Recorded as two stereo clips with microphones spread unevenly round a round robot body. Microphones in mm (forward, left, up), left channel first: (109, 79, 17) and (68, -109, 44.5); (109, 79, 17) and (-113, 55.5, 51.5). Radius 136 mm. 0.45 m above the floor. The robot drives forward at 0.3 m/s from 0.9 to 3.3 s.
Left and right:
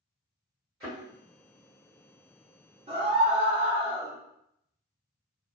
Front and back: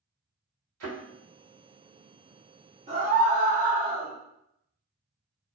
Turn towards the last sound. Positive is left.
turn(degrees=-150)